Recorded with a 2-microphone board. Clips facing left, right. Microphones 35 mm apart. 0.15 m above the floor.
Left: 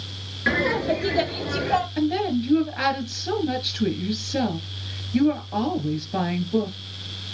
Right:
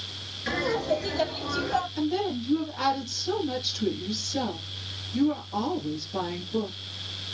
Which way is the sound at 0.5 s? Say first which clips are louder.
Left 5 dB; 50° left (ahead or behind).